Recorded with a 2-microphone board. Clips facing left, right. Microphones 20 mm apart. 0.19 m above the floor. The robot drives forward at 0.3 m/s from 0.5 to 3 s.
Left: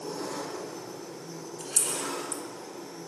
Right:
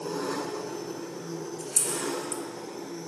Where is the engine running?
55° right (ahead or behind), 0.9 m; by 3.1 s 35° right (ahead or behind), 1.3 m.